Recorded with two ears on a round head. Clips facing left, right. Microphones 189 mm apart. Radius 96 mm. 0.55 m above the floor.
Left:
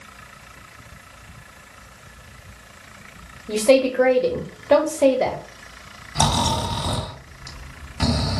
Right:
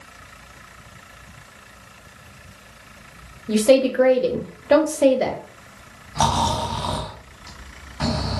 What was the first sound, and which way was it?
A woman speaking, 10° right (ahead or behind).